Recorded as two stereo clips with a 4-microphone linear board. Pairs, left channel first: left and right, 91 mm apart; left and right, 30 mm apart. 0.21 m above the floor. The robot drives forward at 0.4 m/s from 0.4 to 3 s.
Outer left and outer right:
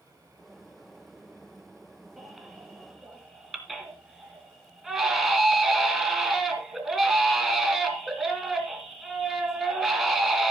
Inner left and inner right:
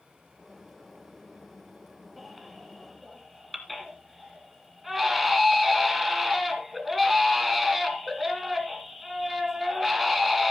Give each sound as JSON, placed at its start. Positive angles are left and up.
{"t": 2.2, "sound": "a baby crying", "side_deg": -5, "distance_m": 3.0}